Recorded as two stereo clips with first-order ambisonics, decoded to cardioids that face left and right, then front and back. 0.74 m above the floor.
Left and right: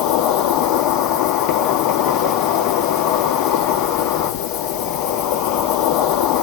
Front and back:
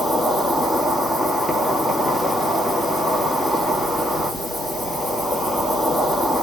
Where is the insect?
80° left, 1.9 m.